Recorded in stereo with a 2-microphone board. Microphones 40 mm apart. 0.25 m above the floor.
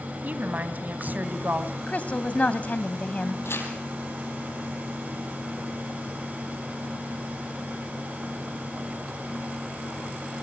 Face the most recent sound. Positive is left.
turn(degrees=75)  # may be behind; listen again after turning